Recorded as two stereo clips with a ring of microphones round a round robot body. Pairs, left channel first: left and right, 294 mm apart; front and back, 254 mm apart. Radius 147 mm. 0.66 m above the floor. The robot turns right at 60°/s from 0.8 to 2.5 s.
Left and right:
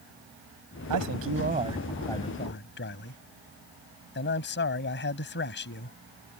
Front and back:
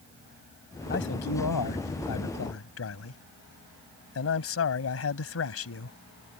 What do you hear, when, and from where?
0.9 s a man speaking: 60° right; by 6.0 s 35° left